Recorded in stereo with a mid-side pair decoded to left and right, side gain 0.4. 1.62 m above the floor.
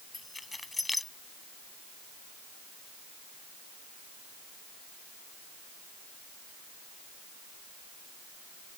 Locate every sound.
0.1 s keys jangling: 15° left